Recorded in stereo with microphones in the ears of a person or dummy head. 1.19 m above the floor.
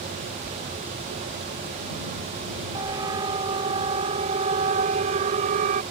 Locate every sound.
2.7 s a siren: 20° right (ahead or behind); by 5.8 s 45° right (ahead or behind)